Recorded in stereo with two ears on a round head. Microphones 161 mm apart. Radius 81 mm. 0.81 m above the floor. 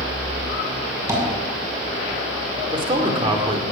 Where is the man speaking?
30° right (ahead or behind), 2.5 m.